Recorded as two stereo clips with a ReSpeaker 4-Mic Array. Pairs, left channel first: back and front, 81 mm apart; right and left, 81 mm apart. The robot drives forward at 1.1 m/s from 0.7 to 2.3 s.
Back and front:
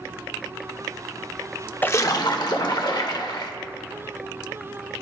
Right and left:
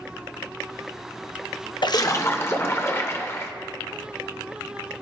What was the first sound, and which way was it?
A splash, 115° right.